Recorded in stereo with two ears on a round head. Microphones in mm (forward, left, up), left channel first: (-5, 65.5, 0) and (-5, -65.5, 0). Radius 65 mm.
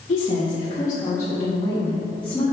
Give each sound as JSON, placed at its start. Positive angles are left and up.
{"t": 0.1, "sound": "a woman speaking", "side_deg": 40, "distance_m": 1.4}